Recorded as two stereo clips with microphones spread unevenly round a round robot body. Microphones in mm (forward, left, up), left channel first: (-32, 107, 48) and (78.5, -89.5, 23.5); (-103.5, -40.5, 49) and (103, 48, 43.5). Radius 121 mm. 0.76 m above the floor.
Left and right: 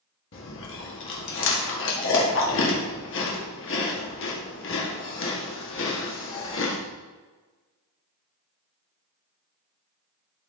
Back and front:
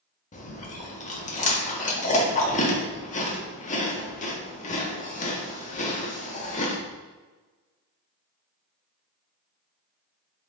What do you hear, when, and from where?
0.3 s chewing: 150° left, 1.6 m